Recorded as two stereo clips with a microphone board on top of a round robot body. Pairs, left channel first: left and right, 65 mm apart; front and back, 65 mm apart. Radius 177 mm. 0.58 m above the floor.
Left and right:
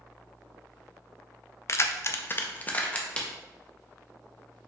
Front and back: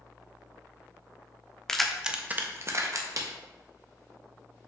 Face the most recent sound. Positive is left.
turn(degrees=160)